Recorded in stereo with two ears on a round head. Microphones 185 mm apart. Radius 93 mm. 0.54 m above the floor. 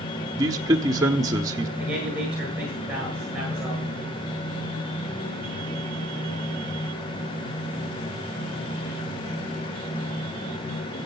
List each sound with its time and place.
0.4 s a man speaking: 20° right (ahead or behind), 1.0 m
1.8 s a man speaking: 5° right (ahead or behind), 8 m